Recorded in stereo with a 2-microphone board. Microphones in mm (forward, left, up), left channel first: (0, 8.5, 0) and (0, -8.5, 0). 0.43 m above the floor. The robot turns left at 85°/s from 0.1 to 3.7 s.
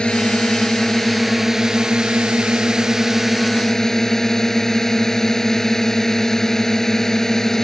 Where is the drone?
100° left; by 7.7 s 155° left.